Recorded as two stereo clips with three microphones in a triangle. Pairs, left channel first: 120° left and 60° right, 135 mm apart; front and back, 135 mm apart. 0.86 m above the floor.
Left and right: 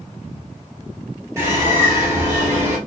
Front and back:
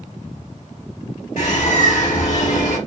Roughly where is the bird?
Ahead.